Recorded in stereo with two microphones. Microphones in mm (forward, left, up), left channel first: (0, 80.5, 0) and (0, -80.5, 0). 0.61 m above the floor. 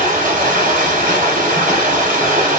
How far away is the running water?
About 1.0 m.